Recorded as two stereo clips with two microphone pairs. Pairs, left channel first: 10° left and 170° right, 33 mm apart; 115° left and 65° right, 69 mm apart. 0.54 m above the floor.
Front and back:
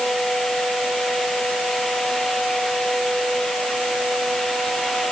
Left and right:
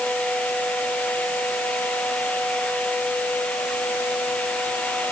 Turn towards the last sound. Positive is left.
No sound to turn to.